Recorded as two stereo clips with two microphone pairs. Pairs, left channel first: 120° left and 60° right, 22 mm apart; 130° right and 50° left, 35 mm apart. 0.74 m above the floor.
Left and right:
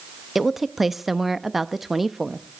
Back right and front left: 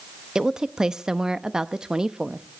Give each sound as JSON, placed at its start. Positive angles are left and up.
{"t": 0.3, "sound": "a woman speaking", "azimuth_deg": 10, "distance_m": 0.6}